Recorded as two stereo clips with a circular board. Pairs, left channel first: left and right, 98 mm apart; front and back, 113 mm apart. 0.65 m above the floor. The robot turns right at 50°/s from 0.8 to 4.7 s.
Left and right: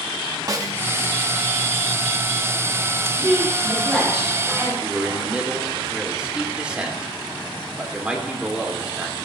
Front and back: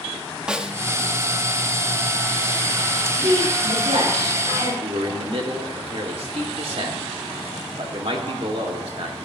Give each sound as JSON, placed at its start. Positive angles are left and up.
{"t": 0.5, "sound": "a snare drum", "azimuth_deg": -105, "distance_m": 0.8}
{"t": 3.1, "sound": "a woman speaking", "azimuth_deg": 130, "distance_m": 8.0}
{"t": 4.8, "sound": "a man speaking", "azimuth_deg": -165, "distance_m": 2.0}